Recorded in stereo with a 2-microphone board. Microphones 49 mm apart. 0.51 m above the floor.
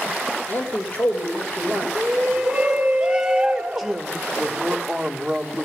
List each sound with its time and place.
0.5 s a man speaking: 45° left (ahead or behind), 2 m
1.9 s a shout: 10° right (ahead or behind), 1.3 m
3.8 s a woman speaking: 5° right (ahead or behind), 1.3 m